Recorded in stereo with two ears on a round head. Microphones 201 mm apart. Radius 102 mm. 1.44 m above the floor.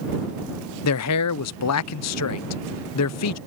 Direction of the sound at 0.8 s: 80° left.